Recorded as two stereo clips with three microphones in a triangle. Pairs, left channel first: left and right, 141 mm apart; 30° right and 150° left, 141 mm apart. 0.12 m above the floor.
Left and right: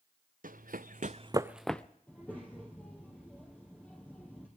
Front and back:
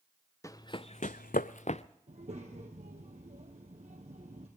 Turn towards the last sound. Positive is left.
turn(degrees=170)